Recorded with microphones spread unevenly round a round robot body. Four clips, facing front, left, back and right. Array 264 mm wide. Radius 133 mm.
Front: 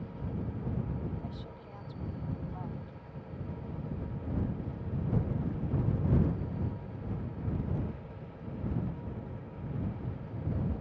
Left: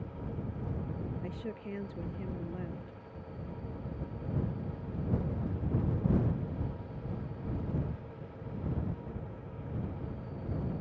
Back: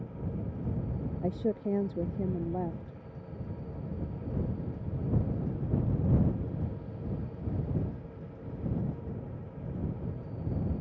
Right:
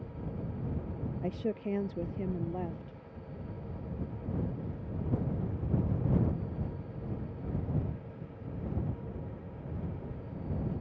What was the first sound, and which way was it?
A woman speaking, 160° right.